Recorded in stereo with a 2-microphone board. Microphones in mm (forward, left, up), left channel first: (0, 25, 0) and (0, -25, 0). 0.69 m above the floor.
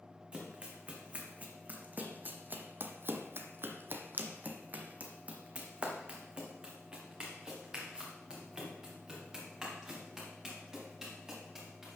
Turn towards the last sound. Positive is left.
turn(degrees=-5)  # may be behind; listen again after turning